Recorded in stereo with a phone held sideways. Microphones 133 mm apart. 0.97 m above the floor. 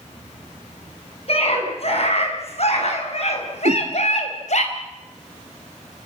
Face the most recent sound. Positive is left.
turn(degrees=-75)  # may be behind; listen again after turning